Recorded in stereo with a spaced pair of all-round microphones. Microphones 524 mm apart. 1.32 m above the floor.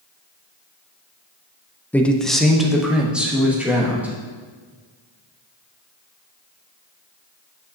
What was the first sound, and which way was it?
A man speaking, 5° left (ahead or behind).